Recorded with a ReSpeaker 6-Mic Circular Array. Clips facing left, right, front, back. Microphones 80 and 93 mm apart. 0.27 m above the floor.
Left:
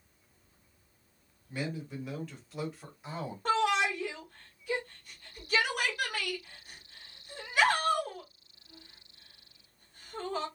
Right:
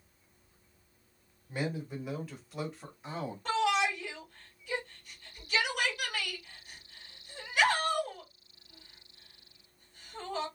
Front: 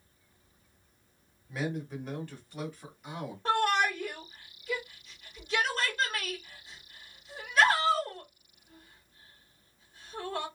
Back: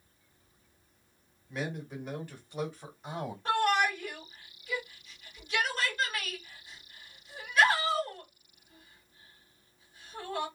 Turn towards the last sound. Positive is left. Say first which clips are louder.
# left 1 dB, even
turn(degrees=50)